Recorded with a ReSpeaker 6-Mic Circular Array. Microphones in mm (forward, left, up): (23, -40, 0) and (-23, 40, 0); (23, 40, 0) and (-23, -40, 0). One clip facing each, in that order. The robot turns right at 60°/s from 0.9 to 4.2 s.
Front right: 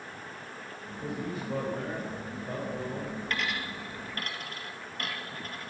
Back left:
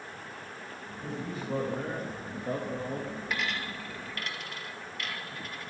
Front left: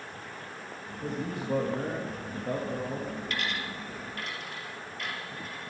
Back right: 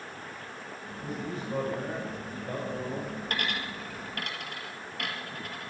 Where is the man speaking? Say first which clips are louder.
Front right 2 dB, front left 2 dB; straight ahead, 3.5 m; by 3.2 s 130° left, 3.5 m.